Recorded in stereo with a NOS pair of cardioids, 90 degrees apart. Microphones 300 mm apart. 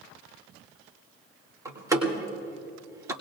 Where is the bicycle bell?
I don't hear a bicycle bell.